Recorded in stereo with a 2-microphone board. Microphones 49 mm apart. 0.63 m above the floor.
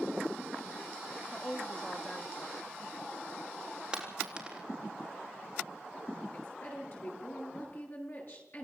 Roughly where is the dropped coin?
Centre.